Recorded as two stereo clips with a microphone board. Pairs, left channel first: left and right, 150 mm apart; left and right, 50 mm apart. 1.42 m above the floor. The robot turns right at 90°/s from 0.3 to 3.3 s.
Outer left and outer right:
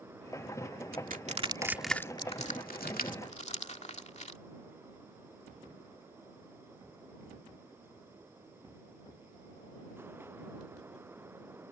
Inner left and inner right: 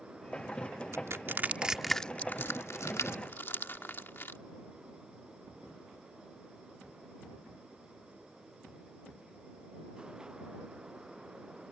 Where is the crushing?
75° right (ahead or behind); by 4.4 s 50° left (ahead or behind).